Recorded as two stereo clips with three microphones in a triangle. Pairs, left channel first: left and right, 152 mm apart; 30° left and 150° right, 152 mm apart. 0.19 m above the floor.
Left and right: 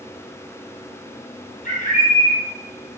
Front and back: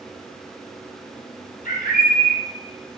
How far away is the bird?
About 4 m.